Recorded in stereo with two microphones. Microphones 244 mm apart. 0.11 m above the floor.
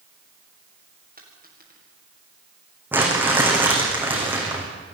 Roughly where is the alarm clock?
I don't hear an alarm clock.